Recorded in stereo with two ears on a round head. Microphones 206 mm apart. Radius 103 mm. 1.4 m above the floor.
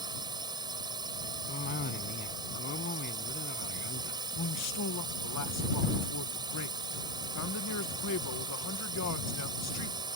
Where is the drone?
20° right (ahead or behind).